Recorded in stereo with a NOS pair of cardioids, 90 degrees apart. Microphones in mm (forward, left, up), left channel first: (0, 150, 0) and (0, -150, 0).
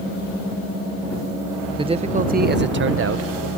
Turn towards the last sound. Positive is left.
turn(degrees=-55)